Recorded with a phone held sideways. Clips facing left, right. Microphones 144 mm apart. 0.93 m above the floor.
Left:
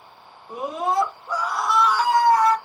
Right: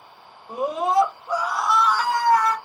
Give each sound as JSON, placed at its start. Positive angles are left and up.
{"t": 0.5, "sound": "a scream", "side_deg": -30, "distance_m": 1.6}